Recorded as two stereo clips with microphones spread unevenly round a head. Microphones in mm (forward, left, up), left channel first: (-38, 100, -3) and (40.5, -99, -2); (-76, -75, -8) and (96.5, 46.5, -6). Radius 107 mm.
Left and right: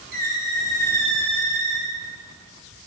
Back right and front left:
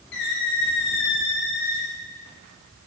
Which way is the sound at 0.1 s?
110° right.